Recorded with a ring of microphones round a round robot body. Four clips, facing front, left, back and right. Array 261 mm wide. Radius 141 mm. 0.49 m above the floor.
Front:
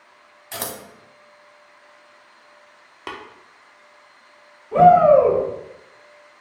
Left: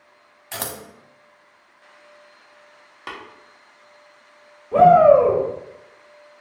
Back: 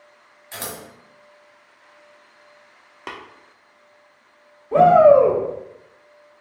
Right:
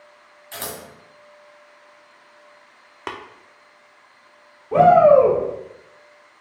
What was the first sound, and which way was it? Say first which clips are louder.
Scissors: left 1 dB, front 2 dB; 60° left.